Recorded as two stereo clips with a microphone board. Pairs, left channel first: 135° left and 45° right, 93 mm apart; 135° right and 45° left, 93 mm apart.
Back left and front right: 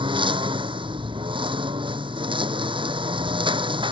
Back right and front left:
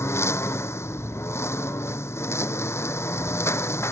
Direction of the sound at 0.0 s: 75° right.